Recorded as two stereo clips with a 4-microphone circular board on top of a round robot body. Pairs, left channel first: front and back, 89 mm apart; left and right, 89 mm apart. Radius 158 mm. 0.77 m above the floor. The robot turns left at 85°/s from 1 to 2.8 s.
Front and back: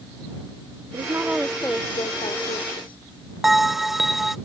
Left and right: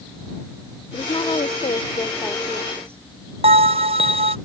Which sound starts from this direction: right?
A bell, at 3.4 s.